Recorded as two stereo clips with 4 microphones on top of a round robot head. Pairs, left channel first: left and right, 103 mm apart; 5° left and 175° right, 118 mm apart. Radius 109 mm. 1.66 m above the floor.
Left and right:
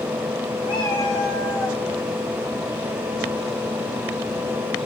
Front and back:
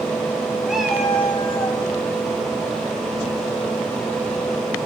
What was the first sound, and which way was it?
A cat meowing, 100° left.